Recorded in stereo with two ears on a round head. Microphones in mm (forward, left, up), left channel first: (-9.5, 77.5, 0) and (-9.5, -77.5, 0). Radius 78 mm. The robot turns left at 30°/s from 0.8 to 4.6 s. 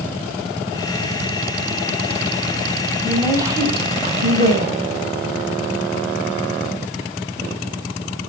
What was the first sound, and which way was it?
A woman speaking, 10° right.